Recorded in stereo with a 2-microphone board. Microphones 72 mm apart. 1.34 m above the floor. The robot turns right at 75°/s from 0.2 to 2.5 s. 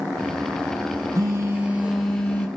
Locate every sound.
1.1 s a phone buzzing: 70° right, 0.7 m; by 2.5 s 30° left, 0.7 m